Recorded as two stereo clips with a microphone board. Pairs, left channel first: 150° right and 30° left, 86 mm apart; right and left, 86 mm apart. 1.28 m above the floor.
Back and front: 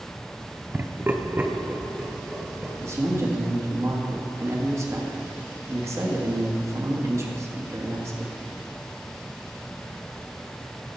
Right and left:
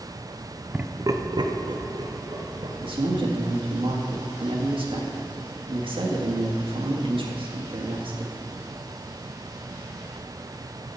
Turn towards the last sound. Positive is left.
turn(degrees=85)